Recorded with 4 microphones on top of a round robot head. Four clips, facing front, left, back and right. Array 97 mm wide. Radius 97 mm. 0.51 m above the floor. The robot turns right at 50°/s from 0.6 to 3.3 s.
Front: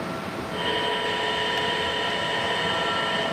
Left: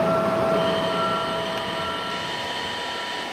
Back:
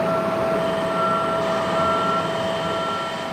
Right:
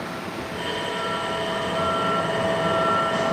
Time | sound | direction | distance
0.0 | a vehicle | 135° left | ?